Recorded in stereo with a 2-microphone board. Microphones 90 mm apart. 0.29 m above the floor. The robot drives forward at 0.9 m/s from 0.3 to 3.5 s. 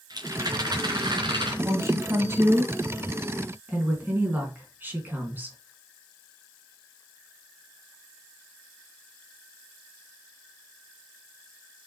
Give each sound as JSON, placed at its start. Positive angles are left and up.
{"t": 0.1, "sound": "a rattle", "side_deg": -50, "distance_m": 3.0}
{"t": 1.6, "sound": "a woman speaking", "side_deg": -35, "distance_m": 2.0}